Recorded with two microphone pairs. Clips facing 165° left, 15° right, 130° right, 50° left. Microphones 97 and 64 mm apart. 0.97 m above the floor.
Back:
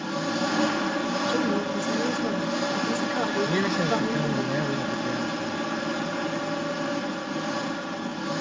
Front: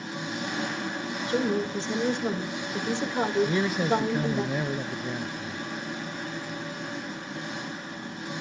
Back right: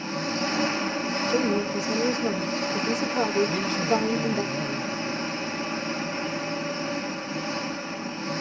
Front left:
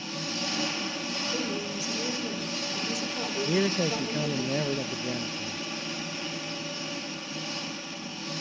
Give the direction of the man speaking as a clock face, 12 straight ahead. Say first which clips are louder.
Back 1 dB, back right 1 dB; 9 o'clock.